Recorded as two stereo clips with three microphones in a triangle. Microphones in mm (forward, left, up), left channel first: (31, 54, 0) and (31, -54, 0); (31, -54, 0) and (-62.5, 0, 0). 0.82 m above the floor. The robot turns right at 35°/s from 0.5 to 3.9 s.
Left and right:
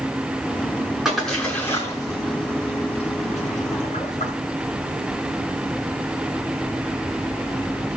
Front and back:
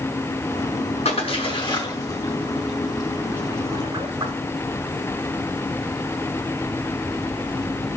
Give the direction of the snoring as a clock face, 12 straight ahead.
I don't hear snoring.